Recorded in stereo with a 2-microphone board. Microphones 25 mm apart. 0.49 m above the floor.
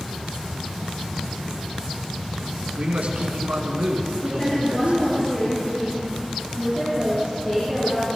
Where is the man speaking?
65° right (ahead or behind), 5 m.